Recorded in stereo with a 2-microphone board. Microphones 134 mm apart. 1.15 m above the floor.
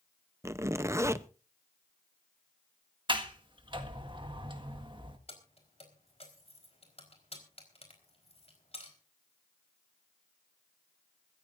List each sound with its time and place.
0.4 s a zipper: 20° right (ahead or behind), 0.7 m
3.1 s a sliding door: 35° right (ahead or behind), 1.6 m
5.3 s keys jangling: 50° left (ahead or behind), 4 m